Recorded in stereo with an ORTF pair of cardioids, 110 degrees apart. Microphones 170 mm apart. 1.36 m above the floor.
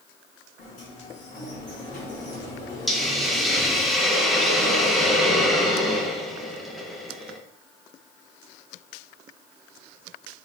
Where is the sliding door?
50° left, 2 m.